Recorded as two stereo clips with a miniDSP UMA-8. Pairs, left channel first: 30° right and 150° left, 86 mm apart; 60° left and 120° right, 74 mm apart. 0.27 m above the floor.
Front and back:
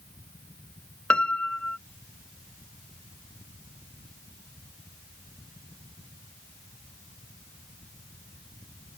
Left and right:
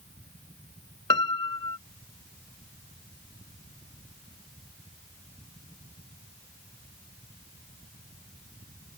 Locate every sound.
1.1 s a piano: 45° left